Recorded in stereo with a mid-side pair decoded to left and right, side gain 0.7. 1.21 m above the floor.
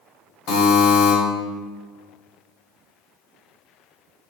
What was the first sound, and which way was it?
A buzzer, 55° left.